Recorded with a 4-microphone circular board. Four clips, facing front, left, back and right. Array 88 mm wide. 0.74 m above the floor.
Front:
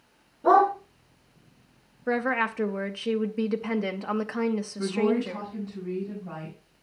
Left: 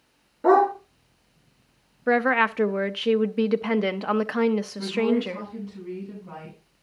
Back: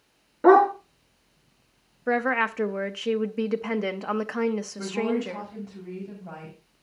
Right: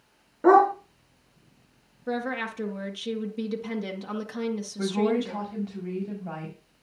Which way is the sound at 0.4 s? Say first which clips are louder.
Right 1 dB, back 3 dB; 160° right.